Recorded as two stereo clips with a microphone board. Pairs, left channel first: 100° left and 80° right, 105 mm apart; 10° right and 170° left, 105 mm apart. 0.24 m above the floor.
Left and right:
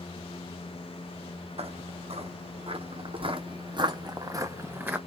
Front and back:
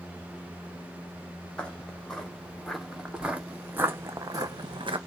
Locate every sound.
1.6 s footsteps: 90° right, 3 m; by 5.0 s 155° right, 1.5 m